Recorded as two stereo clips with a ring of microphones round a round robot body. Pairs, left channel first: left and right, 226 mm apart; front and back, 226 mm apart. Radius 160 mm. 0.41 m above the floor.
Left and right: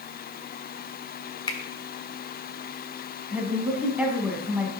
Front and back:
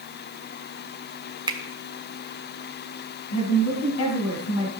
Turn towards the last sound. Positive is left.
turn(degrees=-5)